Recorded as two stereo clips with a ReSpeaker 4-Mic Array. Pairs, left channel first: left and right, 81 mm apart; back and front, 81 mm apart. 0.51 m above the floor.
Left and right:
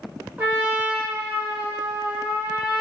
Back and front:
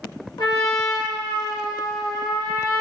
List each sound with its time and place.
0.4 s a trumpet: 150° right, 1.0 m